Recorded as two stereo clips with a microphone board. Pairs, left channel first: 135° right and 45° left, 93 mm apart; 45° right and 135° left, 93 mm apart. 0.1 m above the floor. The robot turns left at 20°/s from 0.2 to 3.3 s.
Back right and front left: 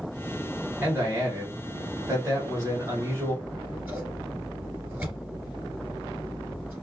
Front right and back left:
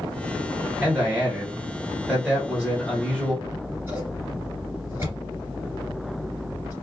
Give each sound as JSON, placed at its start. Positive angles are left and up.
{"t": 0.8, "sound": "a man speaking", "azimuth_deg": 80, "distance_m": 1.3}
{"t": 3.4, "sound": "scissors", "azimuth_deg": 105, "distance_m": 1.9}